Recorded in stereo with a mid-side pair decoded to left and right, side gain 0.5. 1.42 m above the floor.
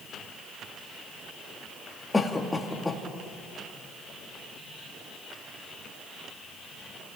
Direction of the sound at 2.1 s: 15° left.